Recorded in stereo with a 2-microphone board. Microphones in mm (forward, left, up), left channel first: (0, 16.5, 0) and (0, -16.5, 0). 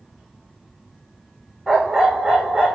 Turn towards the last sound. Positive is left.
turn(degrees=10)  # may be behind; listen again after turning